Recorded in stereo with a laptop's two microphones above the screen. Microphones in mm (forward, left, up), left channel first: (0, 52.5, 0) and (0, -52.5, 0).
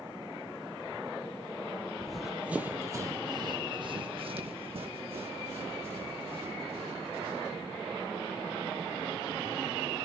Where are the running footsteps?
10° left (ahead or behind), 1.4 m; by 7.6 s 80° right, 5.5 m.